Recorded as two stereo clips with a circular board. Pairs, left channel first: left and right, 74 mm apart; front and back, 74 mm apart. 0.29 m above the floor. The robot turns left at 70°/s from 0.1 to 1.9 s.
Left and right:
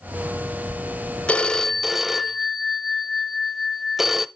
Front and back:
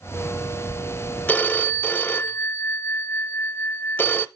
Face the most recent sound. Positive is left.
turn(degrees=-5)